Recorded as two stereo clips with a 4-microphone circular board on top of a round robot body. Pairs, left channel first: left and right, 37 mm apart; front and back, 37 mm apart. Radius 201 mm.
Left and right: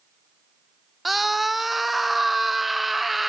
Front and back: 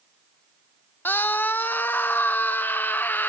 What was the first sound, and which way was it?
A scream, 5° right.